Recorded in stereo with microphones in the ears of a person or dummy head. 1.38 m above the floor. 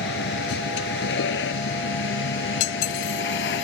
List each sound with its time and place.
0.0 s a vehicle: 65° left (ahead or behind)
2.6 s cutlery clinking: 65° left (ahead or behind)